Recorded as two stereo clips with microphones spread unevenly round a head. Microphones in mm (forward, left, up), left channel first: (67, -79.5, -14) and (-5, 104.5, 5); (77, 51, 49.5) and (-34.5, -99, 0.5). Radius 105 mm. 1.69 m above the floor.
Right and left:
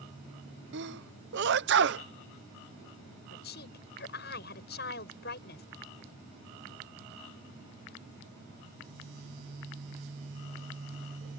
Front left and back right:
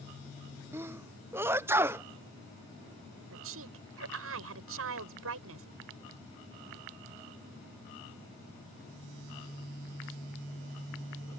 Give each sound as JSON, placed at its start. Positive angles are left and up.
{"t": 0.7, "sound": "a sneeze", "azimuth_deg": 150}
{"t": 3.3, "sound": "a woman speaking", "azimuth_deg": -115}